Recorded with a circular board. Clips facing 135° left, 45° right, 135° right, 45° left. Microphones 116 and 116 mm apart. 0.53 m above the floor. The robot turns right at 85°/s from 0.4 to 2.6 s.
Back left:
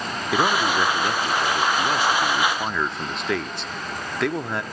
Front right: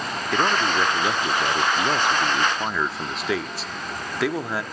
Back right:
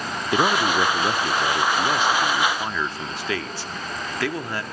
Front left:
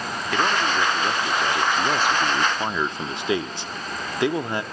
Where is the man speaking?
150° right, 0.7 m; by 4.6 s 40° left, 0.7 m.